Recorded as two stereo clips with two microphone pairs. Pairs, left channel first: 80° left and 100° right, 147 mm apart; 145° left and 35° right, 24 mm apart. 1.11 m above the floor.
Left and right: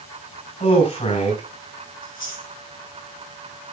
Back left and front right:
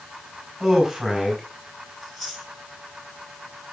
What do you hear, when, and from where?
0.6 s a man speaking: 40° left, 5 m
2.0 s chewing: 65° left, 6 m